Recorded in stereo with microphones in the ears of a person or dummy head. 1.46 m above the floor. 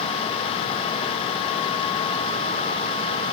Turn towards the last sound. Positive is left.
No sound to turn to.